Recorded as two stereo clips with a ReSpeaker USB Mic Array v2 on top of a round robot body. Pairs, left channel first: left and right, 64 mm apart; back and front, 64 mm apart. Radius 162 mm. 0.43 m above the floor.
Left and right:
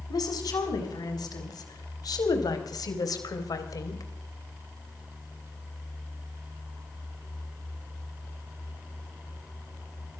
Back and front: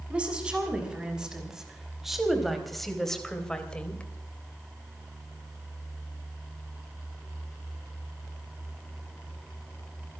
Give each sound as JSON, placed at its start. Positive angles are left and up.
{"t": 0.1, "sound": "a woman speaking", "azimuth_deg": 75, "distance_m": 6.5}